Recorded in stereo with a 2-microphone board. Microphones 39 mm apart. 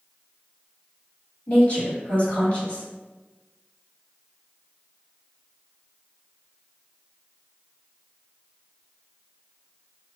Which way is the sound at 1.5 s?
40° left (ahead or behind).